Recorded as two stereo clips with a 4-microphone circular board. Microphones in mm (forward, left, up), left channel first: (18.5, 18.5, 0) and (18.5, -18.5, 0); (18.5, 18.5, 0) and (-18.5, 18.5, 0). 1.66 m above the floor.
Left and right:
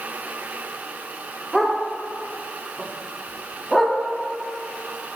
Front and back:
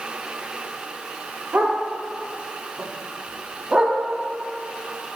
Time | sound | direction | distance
1.5 | a dog barking | 175° left | 2.0 m